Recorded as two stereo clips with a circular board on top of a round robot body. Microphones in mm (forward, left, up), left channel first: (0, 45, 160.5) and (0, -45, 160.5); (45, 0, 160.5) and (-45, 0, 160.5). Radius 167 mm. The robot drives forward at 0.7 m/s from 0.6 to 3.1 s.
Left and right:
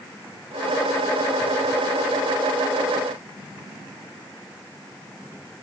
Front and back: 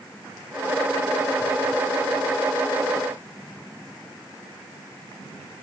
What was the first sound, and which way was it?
Only background noise.